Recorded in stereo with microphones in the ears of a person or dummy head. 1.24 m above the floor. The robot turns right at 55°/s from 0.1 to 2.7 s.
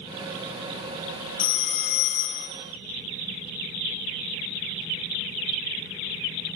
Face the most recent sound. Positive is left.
turn(degrees=105)